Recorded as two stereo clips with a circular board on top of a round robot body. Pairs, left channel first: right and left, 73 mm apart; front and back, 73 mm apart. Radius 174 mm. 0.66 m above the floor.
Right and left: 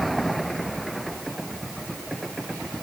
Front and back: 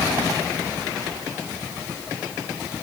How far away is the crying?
I don't hear crying.